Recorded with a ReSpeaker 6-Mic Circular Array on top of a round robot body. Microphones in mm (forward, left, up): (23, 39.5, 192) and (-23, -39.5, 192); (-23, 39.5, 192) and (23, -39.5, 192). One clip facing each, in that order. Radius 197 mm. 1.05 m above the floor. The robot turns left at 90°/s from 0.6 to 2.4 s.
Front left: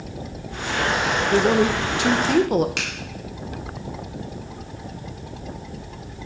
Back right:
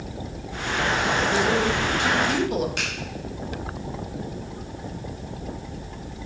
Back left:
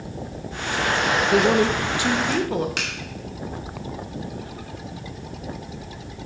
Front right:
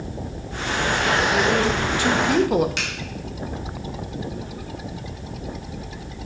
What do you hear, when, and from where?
1.3 s a woman speaking: 110° left, 0.8 m; by 2.7 s 15° left, 0.8 m
2.8 s a finger snap: 80° left, 2 m